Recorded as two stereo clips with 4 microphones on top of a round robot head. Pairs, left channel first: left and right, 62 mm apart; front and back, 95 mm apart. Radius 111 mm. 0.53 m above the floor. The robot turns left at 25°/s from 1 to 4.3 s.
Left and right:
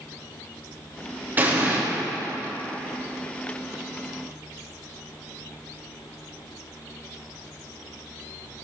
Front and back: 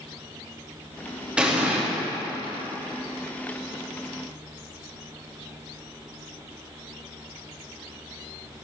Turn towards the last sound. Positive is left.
turn(degrees=175)